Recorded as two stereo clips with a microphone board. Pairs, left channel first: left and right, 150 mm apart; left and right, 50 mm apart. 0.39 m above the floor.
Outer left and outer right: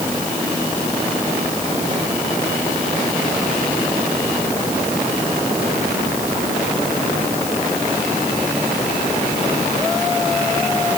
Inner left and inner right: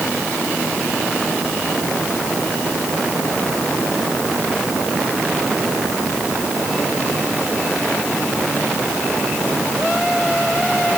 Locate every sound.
Only background noise.